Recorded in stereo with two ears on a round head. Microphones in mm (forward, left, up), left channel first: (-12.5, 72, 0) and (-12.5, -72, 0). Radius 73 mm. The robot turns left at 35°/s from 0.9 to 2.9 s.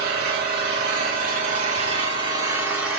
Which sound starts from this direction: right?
An engine running, at 0.0 s.